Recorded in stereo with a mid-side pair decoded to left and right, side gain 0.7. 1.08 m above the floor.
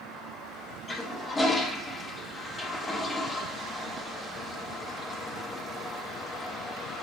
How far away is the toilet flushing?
About 1.1 m.